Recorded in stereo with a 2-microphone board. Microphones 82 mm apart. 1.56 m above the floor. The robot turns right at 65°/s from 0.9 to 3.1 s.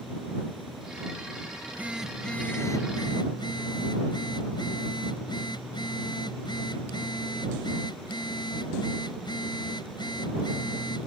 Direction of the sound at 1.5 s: 40° right.